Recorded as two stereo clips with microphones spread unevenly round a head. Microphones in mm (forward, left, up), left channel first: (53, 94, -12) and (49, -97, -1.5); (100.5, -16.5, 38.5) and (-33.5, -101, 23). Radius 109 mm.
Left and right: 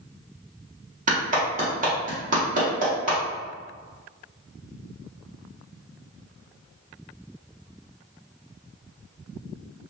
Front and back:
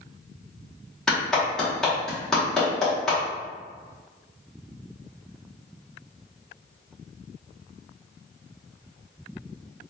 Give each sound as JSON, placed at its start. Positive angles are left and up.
{"t": 1.1, "sound": "a clap", "azimuth_deg": -50, "distance_m": 1.2}